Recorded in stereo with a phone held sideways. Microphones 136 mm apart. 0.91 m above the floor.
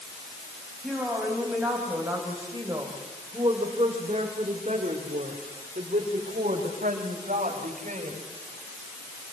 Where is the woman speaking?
5° right (ahead or behind), 6 m; by 8.2 s 65° right (ahead or behind), 5.5 m.